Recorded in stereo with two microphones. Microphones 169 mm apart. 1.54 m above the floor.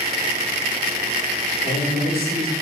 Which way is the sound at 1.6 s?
65° left (ahead or behind).